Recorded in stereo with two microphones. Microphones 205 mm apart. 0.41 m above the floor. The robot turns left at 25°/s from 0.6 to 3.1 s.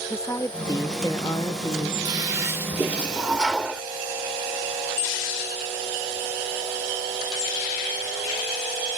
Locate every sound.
0.1 s a woman speaking: 15° left (ahead or behind); by 1.9 s 25° left (ahead or behind)
2.0 s a toilet flushing: 20° right (ahead or behind); by 3.8 s 5° right (ahead or behind)